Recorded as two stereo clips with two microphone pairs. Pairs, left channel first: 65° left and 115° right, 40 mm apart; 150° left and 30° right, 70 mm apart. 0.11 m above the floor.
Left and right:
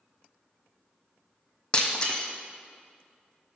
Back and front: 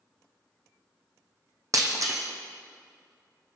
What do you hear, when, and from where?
1.7 s breaking glass: straight ahead, 1.0 m